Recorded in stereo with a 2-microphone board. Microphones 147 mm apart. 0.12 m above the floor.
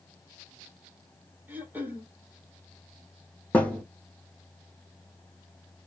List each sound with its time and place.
1.5 s throat clearing: 10° right (ahead or behind), 0.8 m
3.5 s a thud: 10° left (ahead or behind), 0.7 m